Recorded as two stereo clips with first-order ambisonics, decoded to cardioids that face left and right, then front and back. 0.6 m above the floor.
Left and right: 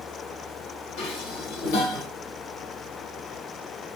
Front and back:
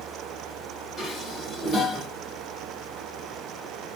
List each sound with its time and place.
1.0 s dishes clattering: 75° left, 1.9 m